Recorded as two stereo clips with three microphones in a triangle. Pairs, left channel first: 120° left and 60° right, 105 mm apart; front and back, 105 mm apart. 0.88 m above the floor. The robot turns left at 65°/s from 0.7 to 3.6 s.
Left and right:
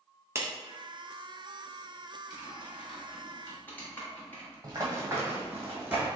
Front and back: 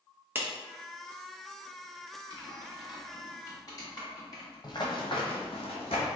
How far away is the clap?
About 0.7 m.